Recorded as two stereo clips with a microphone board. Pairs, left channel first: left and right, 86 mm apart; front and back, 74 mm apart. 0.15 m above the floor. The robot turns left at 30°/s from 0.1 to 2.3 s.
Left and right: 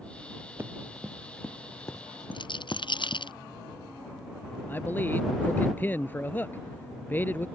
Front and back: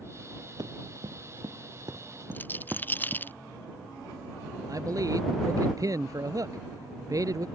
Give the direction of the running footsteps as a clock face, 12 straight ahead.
5 o'clock.